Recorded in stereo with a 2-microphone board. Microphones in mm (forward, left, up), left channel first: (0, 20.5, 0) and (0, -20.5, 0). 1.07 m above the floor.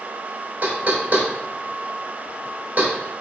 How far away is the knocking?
About 3.5 m.